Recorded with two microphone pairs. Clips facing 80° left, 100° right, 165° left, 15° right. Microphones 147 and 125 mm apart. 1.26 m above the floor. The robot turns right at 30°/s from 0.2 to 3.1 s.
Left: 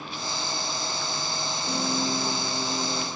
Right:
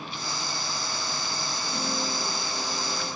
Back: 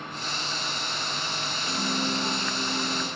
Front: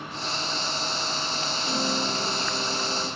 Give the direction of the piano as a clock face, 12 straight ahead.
10 o'clock.